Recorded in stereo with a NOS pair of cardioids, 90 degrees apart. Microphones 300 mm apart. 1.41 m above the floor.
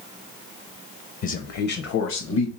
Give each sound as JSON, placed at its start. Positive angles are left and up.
{"t": 1.2, "sound": "a man speaking", "azimuth_deg": 50, "distance_m": 0.7}